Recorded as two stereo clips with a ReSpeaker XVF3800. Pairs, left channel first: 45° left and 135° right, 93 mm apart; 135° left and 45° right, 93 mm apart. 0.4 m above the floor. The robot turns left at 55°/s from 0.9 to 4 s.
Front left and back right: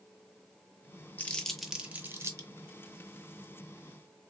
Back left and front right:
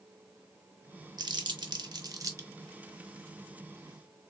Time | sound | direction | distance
1.2 | crumpling | 25° right | 0.7 m